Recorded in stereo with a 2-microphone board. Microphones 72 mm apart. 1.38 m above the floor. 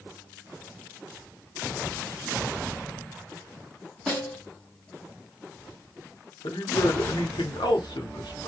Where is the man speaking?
85° left, 0.9 m.